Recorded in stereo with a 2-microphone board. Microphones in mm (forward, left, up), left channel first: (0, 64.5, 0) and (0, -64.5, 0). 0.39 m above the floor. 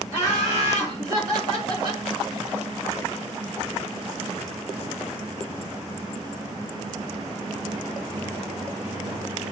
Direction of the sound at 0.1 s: 25° right (ahead or behind).